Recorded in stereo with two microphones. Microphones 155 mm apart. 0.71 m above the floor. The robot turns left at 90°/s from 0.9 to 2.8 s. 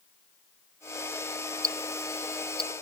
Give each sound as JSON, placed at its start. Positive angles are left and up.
{"t": 1.6, "sound": "ticking", "side_deg": -55}